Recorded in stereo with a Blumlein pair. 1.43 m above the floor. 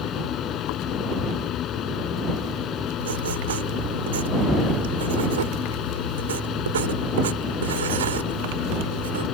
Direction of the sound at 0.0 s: 30° left.